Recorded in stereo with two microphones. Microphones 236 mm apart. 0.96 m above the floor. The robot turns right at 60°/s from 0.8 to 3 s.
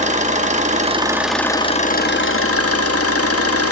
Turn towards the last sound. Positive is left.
turn(degrees=100)